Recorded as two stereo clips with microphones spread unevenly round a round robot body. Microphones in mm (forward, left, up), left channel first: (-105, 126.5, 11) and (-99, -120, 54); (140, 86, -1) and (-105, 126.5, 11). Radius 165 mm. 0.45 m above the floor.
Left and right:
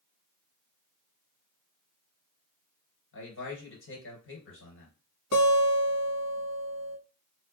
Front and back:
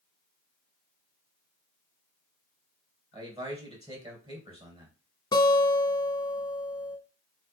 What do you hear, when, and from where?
3.1 s a man speaking: 95° left, 3 m
5.3 s a guitar: 65° left, 1.2 m